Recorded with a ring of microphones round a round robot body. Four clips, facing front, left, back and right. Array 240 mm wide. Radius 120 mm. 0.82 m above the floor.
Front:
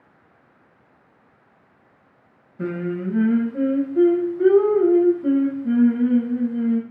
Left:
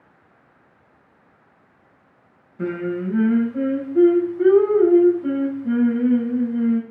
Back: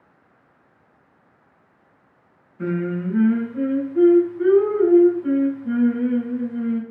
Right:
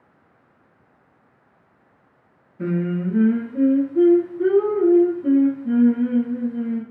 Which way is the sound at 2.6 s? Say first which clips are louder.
Right 1 dB, back 1 dB; 55° left.